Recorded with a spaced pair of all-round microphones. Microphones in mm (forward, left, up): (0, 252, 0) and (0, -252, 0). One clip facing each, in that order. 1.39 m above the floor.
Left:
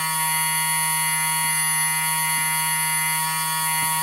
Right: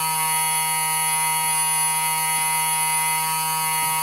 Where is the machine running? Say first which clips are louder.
Right 2 dB; 40° left (ahead or behind), 0.8 m.